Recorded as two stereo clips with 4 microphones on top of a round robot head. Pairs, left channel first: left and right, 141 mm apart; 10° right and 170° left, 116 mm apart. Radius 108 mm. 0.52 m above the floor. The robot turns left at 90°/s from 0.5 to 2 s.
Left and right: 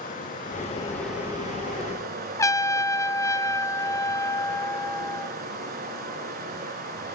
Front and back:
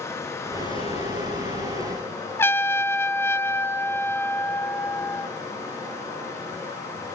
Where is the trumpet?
40° left, 1.1 m.